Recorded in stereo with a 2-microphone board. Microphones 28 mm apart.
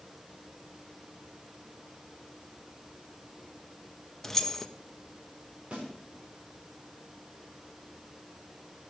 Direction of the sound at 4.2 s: 10° left (ahead or behind).